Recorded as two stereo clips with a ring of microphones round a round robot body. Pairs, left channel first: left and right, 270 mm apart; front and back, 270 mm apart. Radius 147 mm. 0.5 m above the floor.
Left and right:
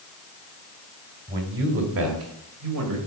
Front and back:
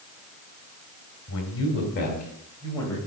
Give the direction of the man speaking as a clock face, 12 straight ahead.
1 o'clock.